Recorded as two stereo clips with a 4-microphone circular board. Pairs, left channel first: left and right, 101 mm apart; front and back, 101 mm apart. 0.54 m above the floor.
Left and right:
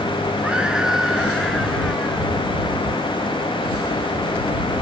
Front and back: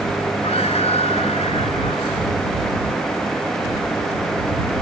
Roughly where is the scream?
Ahead.